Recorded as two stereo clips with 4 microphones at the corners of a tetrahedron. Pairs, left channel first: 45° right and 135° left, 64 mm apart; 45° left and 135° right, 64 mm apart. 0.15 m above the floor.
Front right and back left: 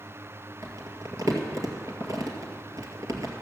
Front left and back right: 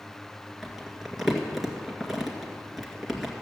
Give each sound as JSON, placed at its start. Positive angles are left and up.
{"t": 0.6, "sound": "crumpling", "azimuth_deg": 135, "distance_m": 2.0}